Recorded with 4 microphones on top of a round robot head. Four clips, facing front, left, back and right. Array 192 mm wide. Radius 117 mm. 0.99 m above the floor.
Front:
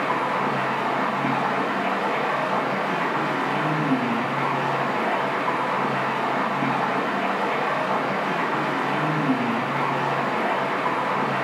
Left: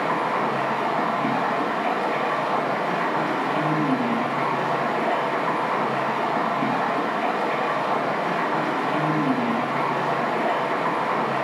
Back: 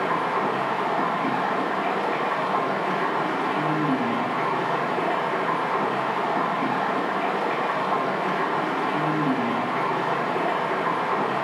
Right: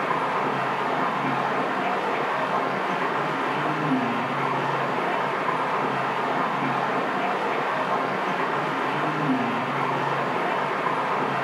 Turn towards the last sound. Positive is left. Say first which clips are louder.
# left 1 dB, even
turn(degrees=45)